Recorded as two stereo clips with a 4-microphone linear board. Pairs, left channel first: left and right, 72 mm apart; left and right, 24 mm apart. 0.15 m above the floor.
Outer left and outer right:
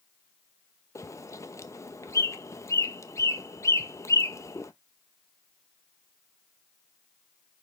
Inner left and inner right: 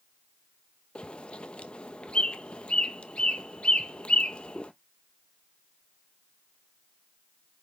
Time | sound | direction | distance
0.9 | a bird | 45° left (ahead or behind) | 0.7 m